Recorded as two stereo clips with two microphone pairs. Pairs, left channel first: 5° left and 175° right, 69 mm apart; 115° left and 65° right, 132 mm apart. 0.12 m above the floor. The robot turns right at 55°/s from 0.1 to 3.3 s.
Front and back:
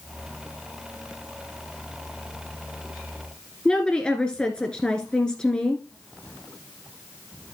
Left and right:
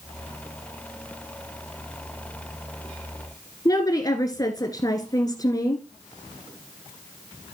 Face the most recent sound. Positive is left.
turn(degrees=75)